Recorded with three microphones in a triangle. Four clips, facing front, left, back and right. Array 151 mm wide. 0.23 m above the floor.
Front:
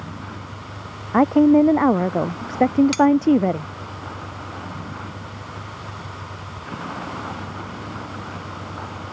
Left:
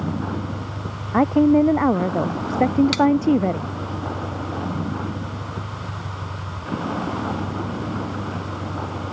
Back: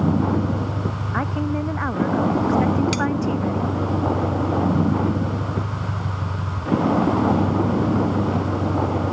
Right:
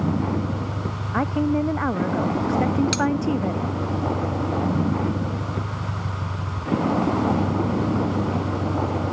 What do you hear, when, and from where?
0.0 s a vehicle: 165° right; by 9.1 s 155° right
1.1 s a woman speaking: 30° left
2.9 s cutlery clinking: 90° left